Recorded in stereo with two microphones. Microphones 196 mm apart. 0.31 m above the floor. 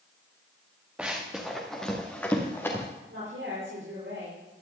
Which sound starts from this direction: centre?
Running footsteps, at 1.0 s.